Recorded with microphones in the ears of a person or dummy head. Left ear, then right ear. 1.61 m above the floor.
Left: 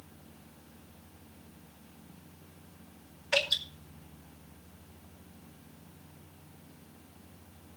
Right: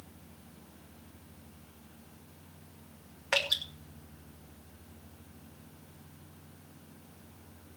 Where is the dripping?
45° right (ahead or behind), 2.5 m.